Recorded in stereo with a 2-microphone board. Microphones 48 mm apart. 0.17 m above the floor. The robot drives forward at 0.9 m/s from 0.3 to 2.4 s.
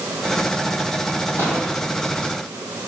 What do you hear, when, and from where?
1.4 s an explosion: 65° left (ahead or behind), 4 m; by 1.7 s 70° left (ahead or behind), 4 m